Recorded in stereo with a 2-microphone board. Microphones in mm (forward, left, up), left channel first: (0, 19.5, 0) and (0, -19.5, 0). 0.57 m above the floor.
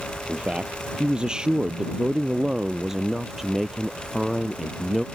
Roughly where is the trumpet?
No trumpet in this recording.